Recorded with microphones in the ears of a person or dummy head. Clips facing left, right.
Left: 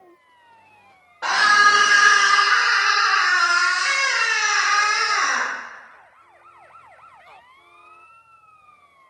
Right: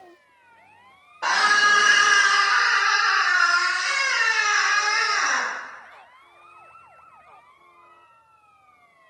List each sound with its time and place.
1.2 s a scream: centre (ahead or behind), 1.0 m; by 5.5 s 60° left (ahead or behind), 2.0 m